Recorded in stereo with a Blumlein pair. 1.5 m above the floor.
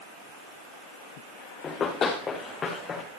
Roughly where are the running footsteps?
Ahead.